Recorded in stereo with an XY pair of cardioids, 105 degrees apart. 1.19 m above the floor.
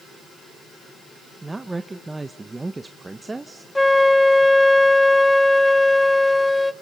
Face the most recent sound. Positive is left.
turn(degrees=5)